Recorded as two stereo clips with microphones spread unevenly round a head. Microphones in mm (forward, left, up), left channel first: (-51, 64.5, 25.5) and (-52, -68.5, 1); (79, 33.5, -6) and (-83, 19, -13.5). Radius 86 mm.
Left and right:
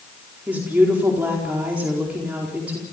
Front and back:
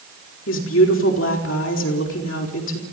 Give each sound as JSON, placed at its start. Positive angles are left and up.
{"t": 0.5, "sound": "a woman speaking", "azimuth_deg": -10, "distance_m": 4.5}